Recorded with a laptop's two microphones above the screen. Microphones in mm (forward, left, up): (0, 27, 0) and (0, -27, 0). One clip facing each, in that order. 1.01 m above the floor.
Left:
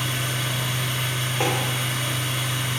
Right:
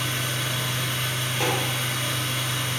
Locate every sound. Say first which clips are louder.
0.0 s a machine running: left 1 dB; 10° left (ahead or behind), 3 m
1.4 s tapping: left 2 dB; 30° left (ahead or behind), 4 m